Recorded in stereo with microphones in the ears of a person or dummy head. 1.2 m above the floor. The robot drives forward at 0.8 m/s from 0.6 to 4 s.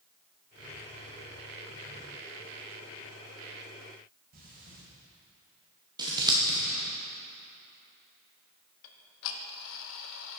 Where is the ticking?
75° left (ahead or behind), 0.7 m.